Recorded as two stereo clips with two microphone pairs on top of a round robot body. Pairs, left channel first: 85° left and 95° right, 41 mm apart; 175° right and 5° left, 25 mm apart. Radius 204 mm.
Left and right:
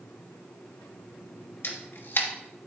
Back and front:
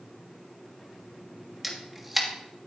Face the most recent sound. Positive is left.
turn(degrees=85)